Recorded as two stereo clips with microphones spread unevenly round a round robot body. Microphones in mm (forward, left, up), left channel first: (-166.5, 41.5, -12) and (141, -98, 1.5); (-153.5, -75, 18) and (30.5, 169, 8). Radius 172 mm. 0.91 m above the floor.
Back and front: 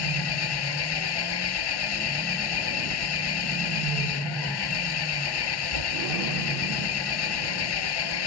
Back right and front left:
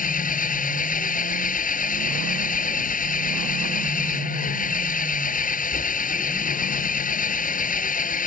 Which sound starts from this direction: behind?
An engine running, at 0.0 s.